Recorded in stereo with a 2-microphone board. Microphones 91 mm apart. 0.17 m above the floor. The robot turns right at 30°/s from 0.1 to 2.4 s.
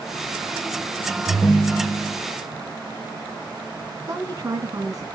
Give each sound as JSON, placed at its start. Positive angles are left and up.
{"t": 1.3, "sound": "a ringtone", "side_deg": 30, "distance_m": 1.8}
{"t": 4.1, "sound": "a woman speaking", "side_deg": -35, "distance_m": 1.6}